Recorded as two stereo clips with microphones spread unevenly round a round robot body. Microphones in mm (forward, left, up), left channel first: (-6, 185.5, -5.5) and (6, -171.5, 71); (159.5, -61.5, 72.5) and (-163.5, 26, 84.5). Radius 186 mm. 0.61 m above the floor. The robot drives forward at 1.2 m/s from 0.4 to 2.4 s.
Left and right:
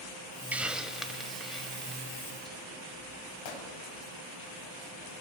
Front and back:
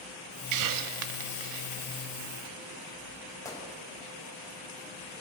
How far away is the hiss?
About 0.6 m.